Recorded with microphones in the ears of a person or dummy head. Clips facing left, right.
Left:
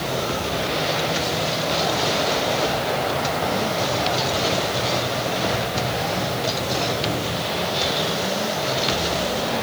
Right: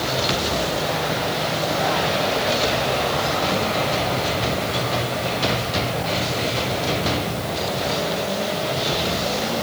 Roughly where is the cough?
No cough in this recording.